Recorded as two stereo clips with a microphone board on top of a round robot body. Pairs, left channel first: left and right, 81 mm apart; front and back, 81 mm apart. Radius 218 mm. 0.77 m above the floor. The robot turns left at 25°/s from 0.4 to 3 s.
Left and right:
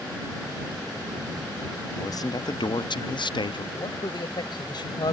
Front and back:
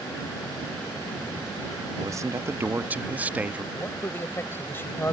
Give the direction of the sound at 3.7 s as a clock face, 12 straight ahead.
10 o'clock.